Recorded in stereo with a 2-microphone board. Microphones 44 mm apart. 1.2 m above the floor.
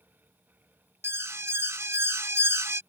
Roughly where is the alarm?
Right.